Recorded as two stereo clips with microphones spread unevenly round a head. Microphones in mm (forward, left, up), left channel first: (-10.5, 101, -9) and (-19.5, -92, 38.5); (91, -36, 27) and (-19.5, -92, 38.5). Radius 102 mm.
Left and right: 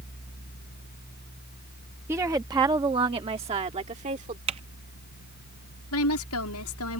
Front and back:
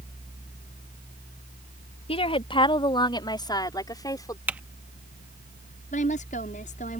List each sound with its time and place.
2.1 s a woman speaking: 15° right; by 4.4 s 35° right
4.5 s typing on a keyboard: 90° right
5.9 s a woman speaking: 75° left